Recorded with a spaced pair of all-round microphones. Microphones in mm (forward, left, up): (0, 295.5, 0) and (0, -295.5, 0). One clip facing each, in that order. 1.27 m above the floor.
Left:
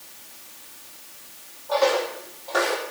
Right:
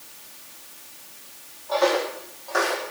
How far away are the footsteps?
About 3 m.